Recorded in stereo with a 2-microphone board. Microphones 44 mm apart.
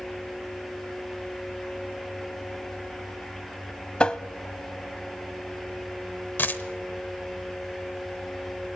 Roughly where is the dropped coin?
Left.